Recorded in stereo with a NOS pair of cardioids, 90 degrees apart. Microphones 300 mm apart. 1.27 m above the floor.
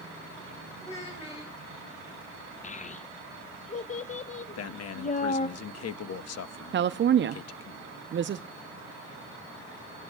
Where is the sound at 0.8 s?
20° left, 6.5 m.